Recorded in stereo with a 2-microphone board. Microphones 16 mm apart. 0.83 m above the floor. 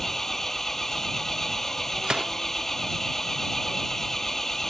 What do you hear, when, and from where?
0.0 s an engine running: 20° left (ahead or behind)
2.0 s a gunshot: 65° right (ahead or behind)